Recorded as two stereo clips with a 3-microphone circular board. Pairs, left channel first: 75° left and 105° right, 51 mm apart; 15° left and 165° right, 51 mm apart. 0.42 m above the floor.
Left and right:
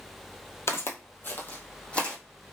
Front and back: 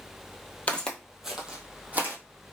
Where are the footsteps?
75° left, 0.6 m; by 2.2 s 145° left, 1.0 m.